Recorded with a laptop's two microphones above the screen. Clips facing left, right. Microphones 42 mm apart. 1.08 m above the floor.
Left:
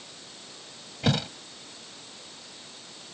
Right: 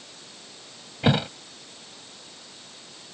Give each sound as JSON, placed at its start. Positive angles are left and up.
{"t": 1.0, "sound": "a thud", "side_deg": -20}